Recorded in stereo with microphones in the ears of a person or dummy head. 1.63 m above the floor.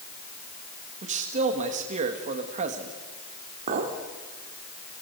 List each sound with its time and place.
1.0 s a man speaking: 45° right (ahead or behind), 1.8 m
3.7 s a clink: 50° right (ahead or behind), 2 m